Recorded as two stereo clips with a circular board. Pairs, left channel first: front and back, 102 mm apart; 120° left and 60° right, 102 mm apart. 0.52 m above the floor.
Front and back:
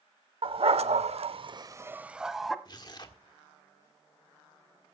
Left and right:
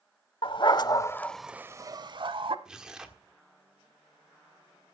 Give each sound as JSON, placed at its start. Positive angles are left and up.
{"t": 0.4, "sound": "a dog barking", "azimuth_deg": 155, "distance_m": 0.9}
{"t": 2.6, "sound": "tearing paper", "azimuth_deg": 20, "distance_m": 1.5}